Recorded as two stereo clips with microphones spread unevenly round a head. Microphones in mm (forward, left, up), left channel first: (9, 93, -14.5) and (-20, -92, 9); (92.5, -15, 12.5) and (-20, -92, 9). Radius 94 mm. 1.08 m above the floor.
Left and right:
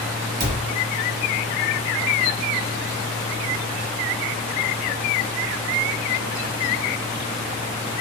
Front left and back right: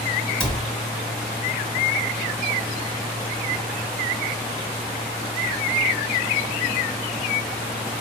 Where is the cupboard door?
50° right, 0.7 m.